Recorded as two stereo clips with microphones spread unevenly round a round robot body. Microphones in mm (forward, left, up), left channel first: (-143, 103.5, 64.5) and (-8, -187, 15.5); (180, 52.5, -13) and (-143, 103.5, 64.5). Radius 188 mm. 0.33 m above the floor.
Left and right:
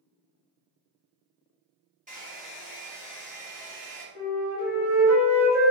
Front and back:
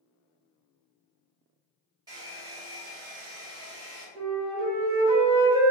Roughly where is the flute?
Ahead.